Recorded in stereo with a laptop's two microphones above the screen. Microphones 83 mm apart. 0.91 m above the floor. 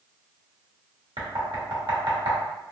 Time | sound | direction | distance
1.2 | knocking | 70° right (ahead or behind) | 1.1 m